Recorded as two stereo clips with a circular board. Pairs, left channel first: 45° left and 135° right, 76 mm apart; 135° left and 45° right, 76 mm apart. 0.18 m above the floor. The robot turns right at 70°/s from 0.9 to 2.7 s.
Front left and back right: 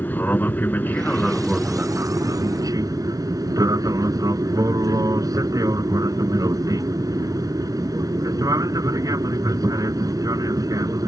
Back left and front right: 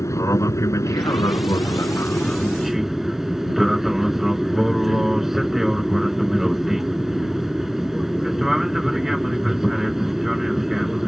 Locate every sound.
0.0 s an aircraft: 105° left; by 11.1 s 130° right